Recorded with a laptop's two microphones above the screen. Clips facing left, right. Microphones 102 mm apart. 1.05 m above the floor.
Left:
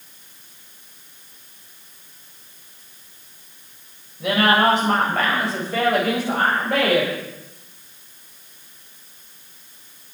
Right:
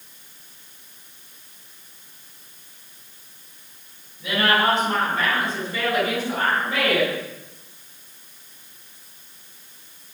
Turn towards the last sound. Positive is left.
turn(degrees=55)  # may be behind; listen again after turning